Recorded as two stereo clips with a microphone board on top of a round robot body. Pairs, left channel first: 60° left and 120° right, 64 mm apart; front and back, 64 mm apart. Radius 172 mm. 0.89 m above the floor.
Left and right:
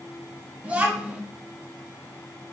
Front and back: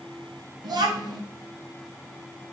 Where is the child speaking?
170° left, 0.7 m.